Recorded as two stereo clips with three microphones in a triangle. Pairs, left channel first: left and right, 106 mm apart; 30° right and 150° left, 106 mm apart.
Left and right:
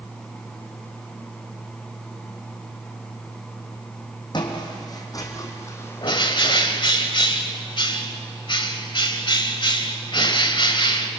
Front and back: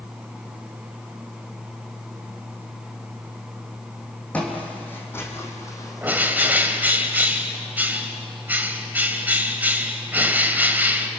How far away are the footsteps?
About 4 m.